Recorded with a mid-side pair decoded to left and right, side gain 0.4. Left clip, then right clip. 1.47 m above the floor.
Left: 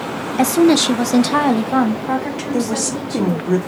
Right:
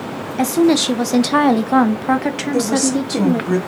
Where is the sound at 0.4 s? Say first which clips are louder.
Left 1 dB; 20° left, 1.7 m; by 3.5 s 80° right, 2.5 m.